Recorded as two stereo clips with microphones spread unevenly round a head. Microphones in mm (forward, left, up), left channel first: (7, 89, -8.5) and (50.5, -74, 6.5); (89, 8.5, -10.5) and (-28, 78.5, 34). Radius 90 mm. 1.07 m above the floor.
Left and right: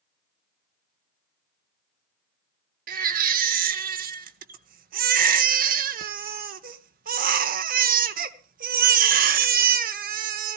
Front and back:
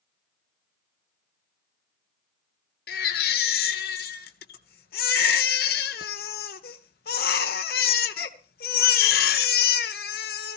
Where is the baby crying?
70° right, 1.0 m.